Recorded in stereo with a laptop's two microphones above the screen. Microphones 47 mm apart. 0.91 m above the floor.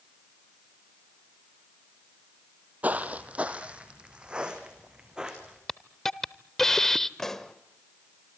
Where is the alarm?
No alarm in this recording.